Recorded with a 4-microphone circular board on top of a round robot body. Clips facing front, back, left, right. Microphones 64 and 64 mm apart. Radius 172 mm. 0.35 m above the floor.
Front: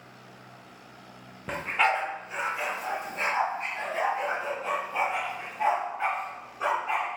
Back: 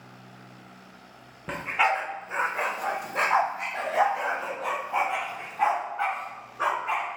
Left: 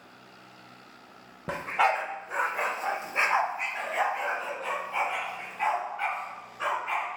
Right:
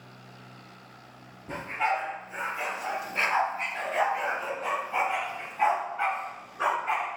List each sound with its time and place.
1.5 s a dog barking: 90° left, 0.9 m; by 7.1 s 155° right, 3 m